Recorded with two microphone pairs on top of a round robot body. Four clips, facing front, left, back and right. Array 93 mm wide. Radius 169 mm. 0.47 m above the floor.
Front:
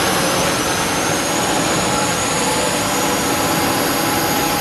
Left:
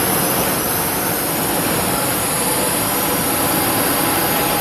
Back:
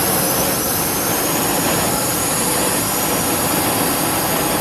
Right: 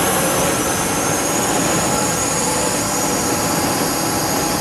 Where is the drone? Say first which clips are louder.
Right 2 dB, front 2 dB; 20° right; by 4.6 s 25° left.